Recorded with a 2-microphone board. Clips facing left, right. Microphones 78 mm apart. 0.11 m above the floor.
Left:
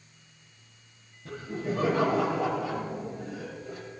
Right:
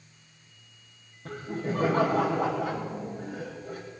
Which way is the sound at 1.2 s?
50° right (ahead or behind).